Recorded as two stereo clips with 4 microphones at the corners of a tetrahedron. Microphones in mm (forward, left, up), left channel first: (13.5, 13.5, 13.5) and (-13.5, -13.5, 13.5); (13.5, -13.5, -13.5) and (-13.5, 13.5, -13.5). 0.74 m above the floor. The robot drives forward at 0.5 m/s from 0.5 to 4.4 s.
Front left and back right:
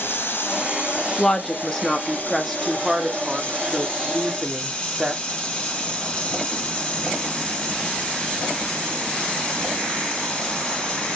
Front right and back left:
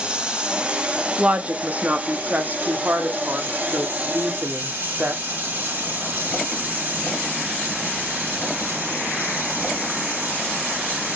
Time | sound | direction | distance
0.0 | running water | 70° left | 3 m
1.2 | a woman speaking | 105° left | 1.3 m